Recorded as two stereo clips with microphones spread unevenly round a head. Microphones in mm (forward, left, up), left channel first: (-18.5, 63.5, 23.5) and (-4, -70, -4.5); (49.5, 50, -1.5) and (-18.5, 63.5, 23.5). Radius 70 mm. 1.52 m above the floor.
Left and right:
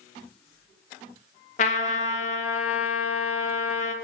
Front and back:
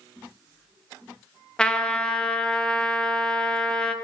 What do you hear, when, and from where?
1.6 s a trumpet: 80° left, 1.0 m